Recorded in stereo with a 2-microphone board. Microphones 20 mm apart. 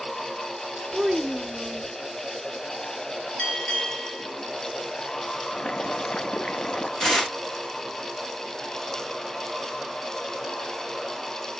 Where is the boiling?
55° left (ahead or behind), 0.9 m.